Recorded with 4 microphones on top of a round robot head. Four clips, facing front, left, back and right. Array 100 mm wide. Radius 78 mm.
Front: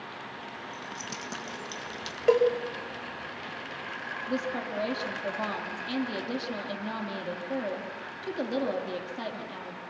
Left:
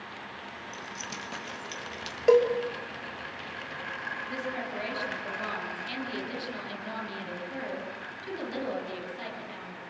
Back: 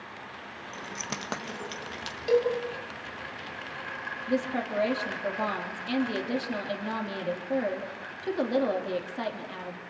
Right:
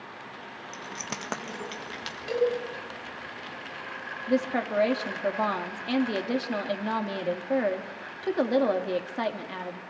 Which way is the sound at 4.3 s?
100° right.